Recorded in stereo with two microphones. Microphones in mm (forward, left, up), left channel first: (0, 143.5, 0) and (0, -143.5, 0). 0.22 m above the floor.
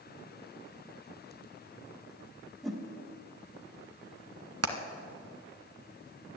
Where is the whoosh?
Centre (ahead or behind), 1.5 m.